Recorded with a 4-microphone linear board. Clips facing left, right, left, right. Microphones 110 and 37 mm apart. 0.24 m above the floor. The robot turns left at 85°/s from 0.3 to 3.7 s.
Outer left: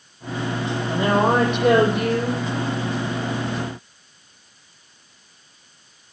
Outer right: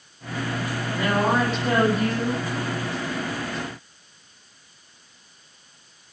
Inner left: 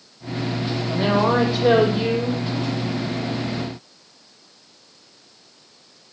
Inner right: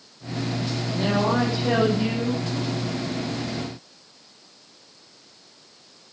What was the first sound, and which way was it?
A woman speaking, 165° left.